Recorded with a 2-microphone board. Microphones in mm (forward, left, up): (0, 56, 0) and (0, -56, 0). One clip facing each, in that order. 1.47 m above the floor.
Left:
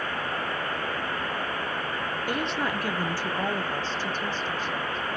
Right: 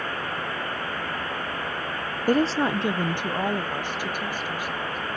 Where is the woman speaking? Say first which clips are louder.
Right 9 dB; 40° right (ahead or behind), 0.5 m; by 5.0 s 10° right (ahead or behind), 2.5 m.